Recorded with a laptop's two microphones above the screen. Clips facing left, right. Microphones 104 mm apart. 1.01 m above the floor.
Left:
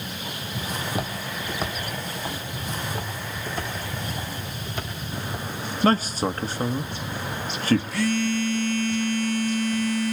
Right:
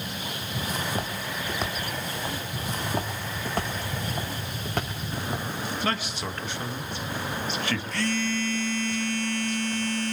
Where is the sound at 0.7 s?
10° left (ahead or behind), 1.1 m; by 2.8 s centre (ahead or behind), 2 m.